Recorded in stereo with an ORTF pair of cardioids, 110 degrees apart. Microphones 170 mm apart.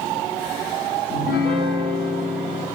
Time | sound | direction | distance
1.1 | a piano | 70° left | 0.6 m